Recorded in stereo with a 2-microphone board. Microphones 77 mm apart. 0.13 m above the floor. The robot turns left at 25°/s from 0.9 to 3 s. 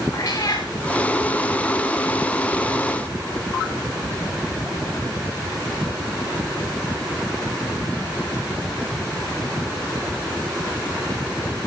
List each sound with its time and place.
0.1 s a cat meowing: 45° left (ahead or behind), 2.5 m